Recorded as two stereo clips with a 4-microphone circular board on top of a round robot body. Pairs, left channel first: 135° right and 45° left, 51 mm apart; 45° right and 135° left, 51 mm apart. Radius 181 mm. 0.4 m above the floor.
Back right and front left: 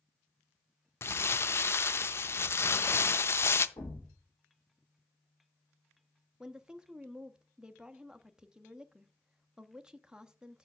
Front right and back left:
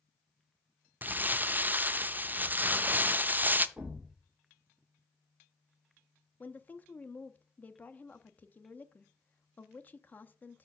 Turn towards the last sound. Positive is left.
turn(degrees=-20)